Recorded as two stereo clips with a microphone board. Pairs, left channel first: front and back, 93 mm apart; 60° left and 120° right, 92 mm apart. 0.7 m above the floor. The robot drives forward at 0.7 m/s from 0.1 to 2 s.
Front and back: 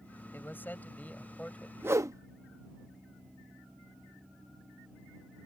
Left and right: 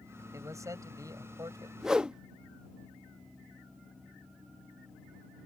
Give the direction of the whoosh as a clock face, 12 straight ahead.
7 o'clock.